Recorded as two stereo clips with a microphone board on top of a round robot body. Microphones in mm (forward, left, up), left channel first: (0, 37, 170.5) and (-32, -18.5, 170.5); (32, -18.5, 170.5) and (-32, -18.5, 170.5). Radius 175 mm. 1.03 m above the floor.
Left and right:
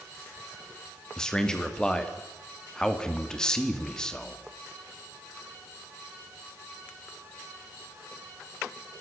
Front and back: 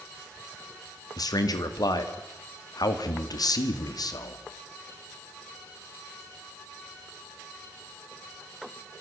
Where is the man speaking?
20° right, 2.5 m.